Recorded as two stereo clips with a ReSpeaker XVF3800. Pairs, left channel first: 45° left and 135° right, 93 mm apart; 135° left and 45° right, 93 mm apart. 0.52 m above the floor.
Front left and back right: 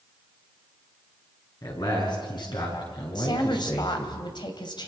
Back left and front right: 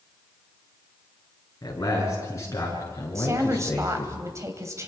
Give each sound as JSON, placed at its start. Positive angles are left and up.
{"t": 1.6, "sound": "a man speaking", "azimuth_deg": 85, "distance_m": 8.0}
{"t": 3.1, "sound": "a woman speaking", "azimuth_deg": 10, "distance_m": 3.0}